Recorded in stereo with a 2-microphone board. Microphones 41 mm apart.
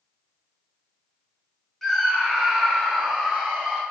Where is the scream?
5° left (ahead or behind), 1.1 m; by 3.8 s 20° right (ahead or behind), 2 m.